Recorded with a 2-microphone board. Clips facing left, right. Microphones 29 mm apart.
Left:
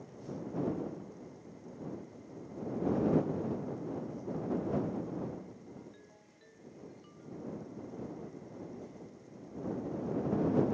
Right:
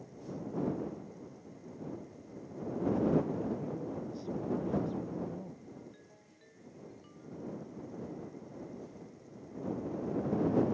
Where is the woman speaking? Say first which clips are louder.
Right 1 dB; 75° right (ahead or behind); by 5.7 s 70° right (ahead or behind).